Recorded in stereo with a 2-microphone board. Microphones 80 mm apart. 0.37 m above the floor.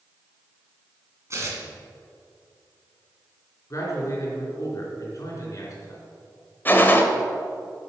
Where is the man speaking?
45° left (ahead or behind), 4 m.